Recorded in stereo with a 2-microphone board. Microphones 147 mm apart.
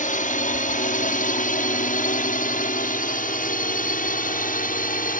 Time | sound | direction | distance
0.0 | a drone | 60° left (ahead or behind) | ?